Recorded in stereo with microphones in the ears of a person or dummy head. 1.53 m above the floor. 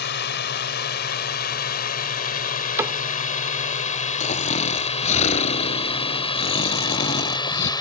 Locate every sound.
0.0 s a drone: 65° left (ahead or behind); by 7.8 s 25° left (ahead or behind)
2.8 s a cupboard door: 20° right (ahead or behind)
4.2 s snoring: 40° left (ahead or behind)